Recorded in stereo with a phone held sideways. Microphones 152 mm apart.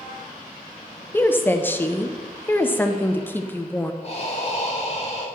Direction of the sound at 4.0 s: 40° left (ahead or behind).